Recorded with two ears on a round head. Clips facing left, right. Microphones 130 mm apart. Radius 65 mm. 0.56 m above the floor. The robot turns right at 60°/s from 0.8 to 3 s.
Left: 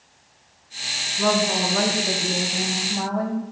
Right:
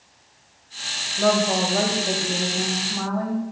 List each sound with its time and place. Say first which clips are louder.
1.2 s a woman speaking: right 2 dB; 70° right, 3 m; by 3.4 s 40° left, 3 m